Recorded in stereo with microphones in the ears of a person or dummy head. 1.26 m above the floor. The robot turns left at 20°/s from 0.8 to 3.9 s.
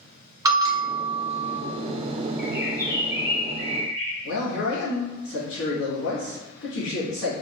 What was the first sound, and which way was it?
A bell, 15° right (ahead or behind).